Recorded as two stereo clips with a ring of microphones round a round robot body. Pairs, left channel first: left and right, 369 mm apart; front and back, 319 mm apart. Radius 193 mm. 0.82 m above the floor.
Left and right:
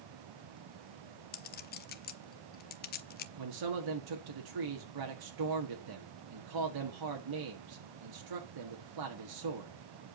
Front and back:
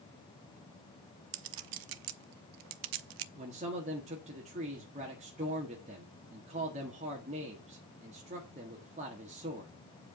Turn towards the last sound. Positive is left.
turn(degrees=-110)